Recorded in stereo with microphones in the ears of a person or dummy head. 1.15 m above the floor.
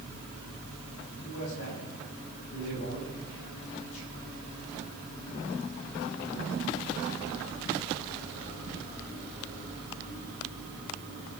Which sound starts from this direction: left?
A man speaking, at 1.1 s.